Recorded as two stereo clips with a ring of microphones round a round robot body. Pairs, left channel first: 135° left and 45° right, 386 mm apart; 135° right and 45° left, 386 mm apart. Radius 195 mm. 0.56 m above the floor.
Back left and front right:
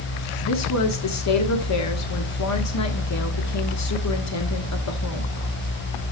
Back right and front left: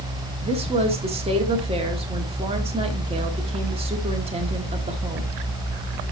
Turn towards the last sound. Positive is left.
turn(degrees=115)